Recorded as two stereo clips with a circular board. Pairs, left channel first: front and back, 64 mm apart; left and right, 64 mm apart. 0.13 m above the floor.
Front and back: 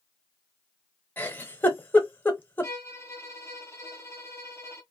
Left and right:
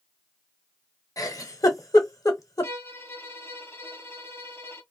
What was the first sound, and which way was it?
A giggle, 60° left.